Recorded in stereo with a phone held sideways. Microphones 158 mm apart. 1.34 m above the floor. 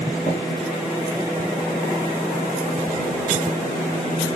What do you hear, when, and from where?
0.3 s tapping: 55° left (ahead or behind), 5.5 m